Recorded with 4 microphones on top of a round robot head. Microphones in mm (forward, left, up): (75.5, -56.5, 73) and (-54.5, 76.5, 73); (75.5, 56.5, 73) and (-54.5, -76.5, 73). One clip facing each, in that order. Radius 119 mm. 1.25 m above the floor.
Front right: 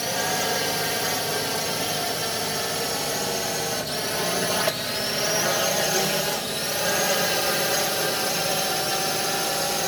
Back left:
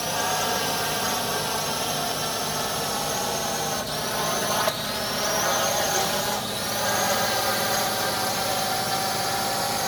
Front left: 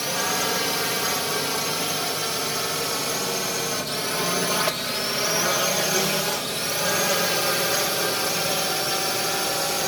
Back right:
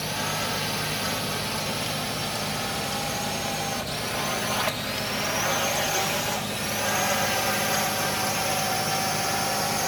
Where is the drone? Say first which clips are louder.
Front right 1 dB, front left 4 dB; 25° left; by 9.9 s 5° left.